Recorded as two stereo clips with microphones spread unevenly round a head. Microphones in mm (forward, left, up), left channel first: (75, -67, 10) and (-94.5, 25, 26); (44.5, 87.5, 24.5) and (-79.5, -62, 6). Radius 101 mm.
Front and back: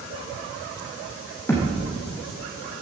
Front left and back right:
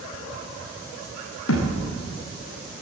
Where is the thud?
50° left, 3 m.